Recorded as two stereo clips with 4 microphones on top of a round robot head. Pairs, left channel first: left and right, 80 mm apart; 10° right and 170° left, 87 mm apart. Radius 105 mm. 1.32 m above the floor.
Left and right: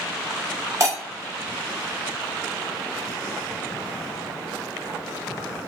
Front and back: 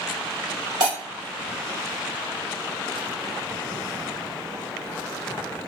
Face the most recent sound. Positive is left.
turn(degrees=-140)